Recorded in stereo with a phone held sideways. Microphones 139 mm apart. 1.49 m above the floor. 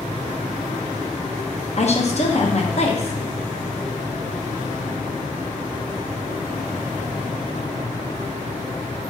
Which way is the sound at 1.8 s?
50° left (ahead or behind).